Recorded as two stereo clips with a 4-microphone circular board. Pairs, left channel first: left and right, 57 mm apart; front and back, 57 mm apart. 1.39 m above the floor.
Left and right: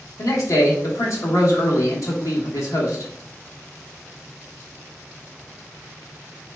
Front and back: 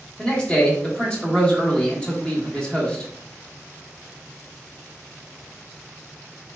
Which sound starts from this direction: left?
A man speaking, at 0.2 s.